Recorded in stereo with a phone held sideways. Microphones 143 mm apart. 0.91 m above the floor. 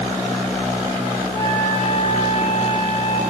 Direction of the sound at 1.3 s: 55° right (ahead or behind).